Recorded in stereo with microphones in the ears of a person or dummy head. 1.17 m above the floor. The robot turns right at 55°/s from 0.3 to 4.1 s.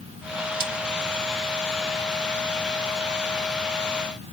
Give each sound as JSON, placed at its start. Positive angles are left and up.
{"t": 0.5, "sound": "a crack", "side_deg": -30, "distance_m": 1.5}